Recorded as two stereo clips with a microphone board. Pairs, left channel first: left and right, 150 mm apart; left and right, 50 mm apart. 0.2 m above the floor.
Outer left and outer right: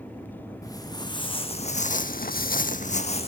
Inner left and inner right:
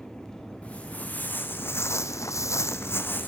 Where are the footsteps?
25° left (ahead or behind), 1.4 m; by 3.3 s 40° left (ahead or behind), 0.9 m.